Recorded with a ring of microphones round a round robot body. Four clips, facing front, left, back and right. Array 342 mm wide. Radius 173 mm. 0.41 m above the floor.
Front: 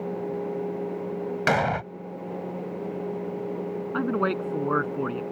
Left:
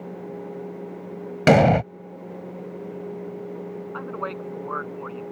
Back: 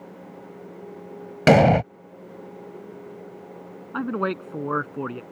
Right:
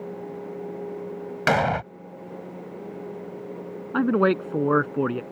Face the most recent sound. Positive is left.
turn(degrees=-85)